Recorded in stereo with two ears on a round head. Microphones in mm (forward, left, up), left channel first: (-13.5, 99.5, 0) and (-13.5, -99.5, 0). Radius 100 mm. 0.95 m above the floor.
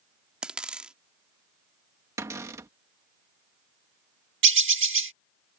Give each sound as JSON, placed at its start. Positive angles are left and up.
{"t": 0.4, "sound": "a dropped coin", "side_deg": -5}
{"t": 2.2, "sound": "a cupboard door", "side_deg": -10}
{"t": 4.4, "sound": "a bird", "side_deg": -60}